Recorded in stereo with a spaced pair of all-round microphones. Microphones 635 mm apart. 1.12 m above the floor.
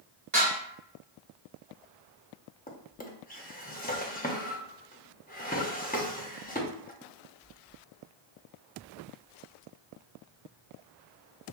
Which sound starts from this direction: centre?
A drawer, at 2.7 s.